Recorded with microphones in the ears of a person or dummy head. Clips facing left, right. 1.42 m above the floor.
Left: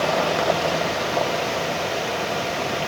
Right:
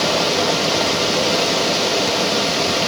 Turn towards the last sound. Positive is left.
turn(degrees=-55)  # may be behind; listen again after turning